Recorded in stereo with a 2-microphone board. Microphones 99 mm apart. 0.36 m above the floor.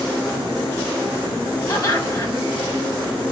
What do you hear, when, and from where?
1.7 s laughter: 40° left (ahead or behind), 1.8 m